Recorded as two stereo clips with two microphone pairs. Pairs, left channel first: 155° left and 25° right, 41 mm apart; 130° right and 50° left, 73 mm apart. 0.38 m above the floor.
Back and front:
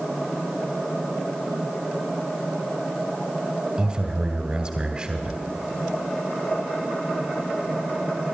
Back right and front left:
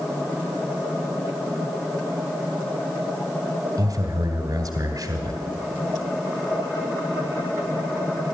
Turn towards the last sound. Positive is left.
turn(degrees=35)